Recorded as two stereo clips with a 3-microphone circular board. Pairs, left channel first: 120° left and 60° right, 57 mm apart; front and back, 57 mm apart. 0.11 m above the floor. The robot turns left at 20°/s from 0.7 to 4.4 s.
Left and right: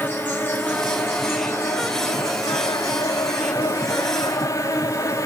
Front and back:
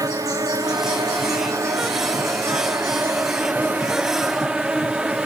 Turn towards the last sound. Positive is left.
turn(degrees=105)